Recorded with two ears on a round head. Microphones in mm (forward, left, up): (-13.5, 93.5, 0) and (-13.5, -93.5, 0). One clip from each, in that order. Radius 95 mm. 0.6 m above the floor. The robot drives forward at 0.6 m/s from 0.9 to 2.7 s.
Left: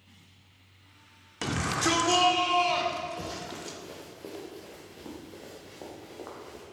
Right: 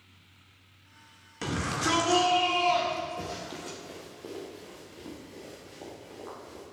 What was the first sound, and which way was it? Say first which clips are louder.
A shout: left 2 dB; 25° left (ahead or behind).